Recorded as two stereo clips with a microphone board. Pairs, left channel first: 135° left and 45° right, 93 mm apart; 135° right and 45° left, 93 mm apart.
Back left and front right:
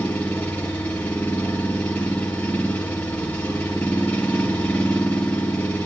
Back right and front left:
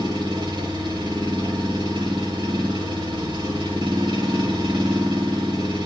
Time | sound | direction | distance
0.0 | an engine running | 60° left | 3.5 m